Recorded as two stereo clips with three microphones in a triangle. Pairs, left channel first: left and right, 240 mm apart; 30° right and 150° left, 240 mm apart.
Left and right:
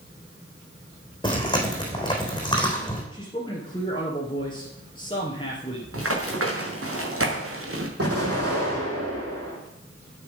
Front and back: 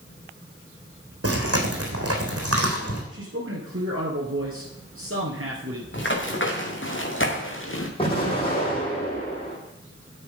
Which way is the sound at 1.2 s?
160° left.